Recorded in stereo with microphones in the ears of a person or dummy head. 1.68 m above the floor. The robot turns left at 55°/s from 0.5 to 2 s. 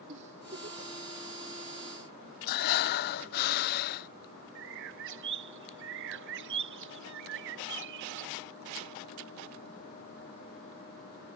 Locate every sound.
0.1 s a giggle: 35° right (ahead or behind); by 0.9 s 60° right (ahead or behind)
2.5 s breathing: 65° left (ahead or behind)
4.5 s a bird: 70° right (ahead or behind)